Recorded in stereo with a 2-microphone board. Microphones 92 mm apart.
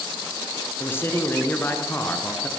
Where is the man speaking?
25° left (ahead or behind), 2.5 m.